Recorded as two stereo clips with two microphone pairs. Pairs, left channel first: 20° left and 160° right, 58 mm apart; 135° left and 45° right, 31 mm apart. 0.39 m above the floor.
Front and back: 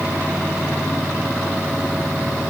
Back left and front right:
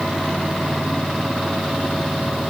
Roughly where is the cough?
I don't hear a cough.